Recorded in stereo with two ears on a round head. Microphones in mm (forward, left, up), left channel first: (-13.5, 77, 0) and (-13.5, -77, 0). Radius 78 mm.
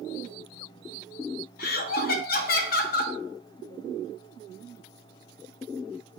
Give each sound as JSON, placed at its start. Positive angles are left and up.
{"t": 1.6, "sound": "laughter", "side_deg": 55, "distance_m": 0.8}